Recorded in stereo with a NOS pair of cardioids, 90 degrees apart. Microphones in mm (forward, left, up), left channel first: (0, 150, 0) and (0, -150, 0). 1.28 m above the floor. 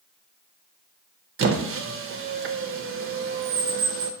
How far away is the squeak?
About 0.5 m.